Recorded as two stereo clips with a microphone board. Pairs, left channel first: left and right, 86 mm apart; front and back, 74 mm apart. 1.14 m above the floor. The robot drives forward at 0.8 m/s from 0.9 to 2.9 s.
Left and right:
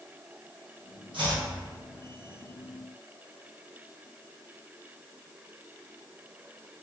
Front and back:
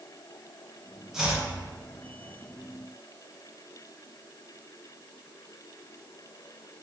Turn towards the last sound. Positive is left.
turn(degrees=-145)